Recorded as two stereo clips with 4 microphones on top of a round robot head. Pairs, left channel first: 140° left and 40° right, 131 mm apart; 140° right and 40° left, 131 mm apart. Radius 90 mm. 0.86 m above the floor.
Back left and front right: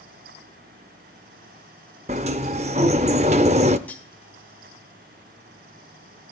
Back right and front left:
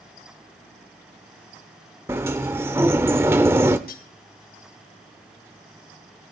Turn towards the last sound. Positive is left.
turn(degrees=-140)